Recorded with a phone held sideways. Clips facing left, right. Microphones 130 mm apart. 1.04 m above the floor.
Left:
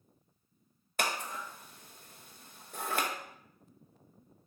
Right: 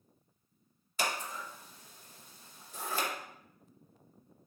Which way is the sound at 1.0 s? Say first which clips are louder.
Left 1 dB; 60° left (ahead or behind).